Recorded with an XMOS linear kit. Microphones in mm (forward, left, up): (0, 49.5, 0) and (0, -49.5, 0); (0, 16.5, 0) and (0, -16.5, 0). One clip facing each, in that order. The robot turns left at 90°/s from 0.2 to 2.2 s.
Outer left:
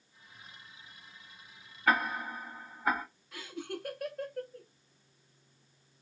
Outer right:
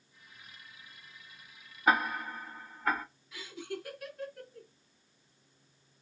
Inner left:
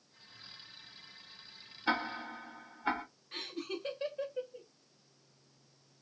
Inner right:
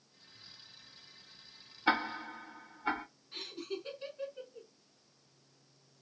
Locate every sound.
1.9 s ticking: 20° right (ahead or behind), 0.6 m; by 3.0 s 10° left (ahead or behind), 0.6 m
3.3 s laughter: 55° left (ahead or behind), 1.3 m